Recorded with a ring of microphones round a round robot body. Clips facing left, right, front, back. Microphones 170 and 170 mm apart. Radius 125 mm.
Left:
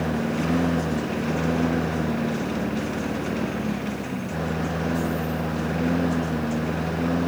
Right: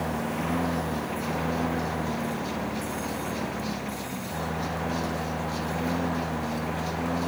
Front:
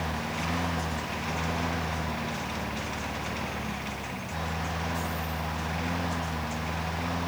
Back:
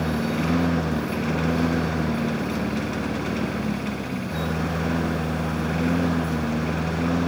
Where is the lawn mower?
155° left.